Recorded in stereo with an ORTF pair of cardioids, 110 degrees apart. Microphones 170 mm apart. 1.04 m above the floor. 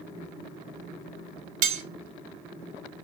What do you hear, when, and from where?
1.6 s cutlery clinking: 60° right, 0.6 m